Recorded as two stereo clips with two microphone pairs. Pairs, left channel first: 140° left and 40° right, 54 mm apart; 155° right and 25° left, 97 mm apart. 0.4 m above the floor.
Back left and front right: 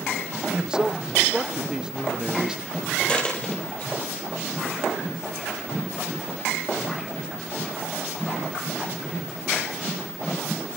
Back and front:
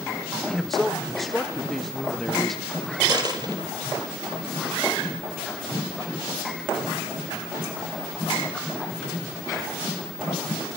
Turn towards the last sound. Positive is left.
turn(degrees=70)